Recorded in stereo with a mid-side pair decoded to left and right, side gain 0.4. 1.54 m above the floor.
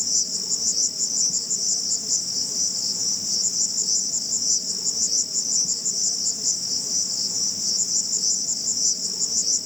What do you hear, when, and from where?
0.0 s an insect: 20° left